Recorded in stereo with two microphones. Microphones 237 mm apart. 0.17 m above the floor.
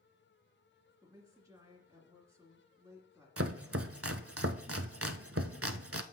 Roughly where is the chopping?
Right.